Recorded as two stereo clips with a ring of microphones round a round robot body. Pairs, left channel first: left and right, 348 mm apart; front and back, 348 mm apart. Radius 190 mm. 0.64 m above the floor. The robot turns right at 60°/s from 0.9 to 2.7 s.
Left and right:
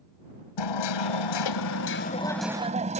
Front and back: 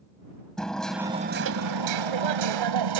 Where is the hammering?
90° left; by 3.0 s 165° right.